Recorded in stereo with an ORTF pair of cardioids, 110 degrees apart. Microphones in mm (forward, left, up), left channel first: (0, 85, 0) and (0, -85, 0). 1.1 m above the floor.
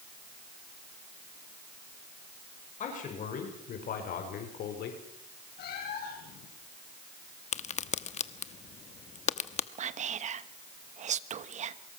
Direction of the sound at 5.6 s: 65° left.